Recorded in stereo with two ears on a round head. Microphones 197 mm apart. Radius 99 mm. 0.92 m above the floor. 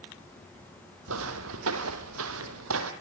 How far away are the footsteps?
About 2.5 m.